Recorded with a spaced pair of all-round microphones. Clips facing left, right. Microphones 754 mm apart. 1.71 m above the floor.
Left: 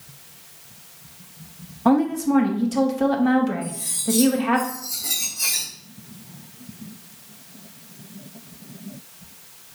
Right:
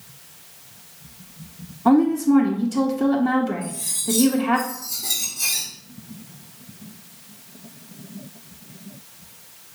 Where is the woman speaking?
20° left (ahead or behind), 0.5 m.